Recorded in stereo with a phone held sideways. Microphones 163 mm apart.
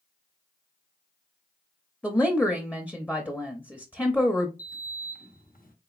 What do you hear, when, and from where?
2.0 s a woman speaking: 10° left (ahead or behind), 0.6 m
4.6 s a sliding door: 60° left (ahead or behind), 0.8 m